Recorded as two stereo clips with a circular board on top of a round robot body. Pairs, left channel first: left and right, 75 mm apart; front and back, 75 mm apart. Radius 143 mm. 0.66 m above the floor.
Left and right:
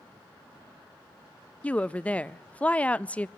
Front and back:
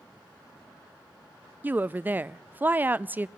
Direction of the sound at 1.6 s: 145° left.